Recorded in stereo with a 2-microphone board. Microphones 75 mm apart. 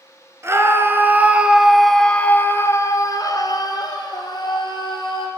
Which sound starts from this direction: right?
A scream, at 0.4 s.